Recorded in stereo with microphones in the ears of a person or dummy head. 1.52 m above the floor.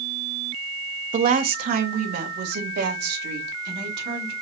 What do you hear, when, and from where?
1.1 s a woman speaking: 40° right (ahead or behind), 0.9 m; by 4.3 s 55° right (ahead or behind), 2.5 m